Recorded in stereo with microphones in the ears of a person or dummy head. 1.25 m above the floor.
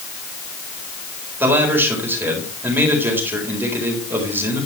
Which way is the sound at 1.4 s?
15° right (ahead or behind).